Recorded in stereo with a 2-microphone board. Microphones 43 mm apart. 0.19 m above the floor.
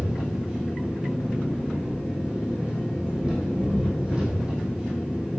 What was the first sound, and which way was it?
An engine running, 25° right (ahead or behind).